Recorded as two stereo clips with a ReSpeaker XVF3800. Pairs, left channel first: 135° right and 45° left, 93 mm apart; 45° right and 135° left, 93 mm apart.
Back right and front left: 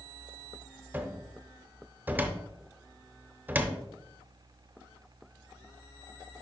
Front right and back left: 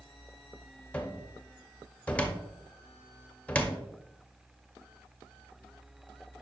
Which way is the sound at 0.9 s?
10° left.